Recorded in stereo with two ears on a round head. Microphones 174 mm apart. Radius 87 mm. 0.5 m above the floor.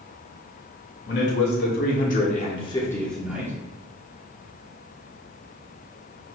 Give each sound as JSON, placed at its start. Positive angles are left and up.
{"t": 1.1, "sound": "a man speaking", "side_deg": 60, "distance_m": 1.8}